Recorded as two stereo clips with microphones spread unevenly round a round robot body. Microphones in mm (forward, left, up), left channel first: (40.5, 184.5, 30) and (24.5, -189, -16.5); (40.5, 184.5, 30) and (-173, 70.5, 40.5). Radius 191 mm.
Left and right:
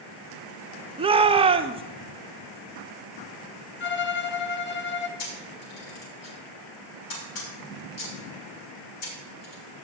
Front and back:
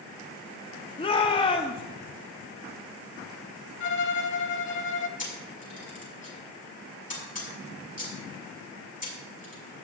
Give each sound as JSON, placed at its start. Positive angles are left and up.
{"t": 1.0, "sound": "a shout", "azimuth_deg": -30, "distance_m": 0.6}
{"t": 3.8, "sound": "a violin", "azimuth_deg": 70, "distance_m": 1.1}
{"t": 5.2, "sound": "a camera shutter", "azimuth_deg": 85, "distance_m": 6.0}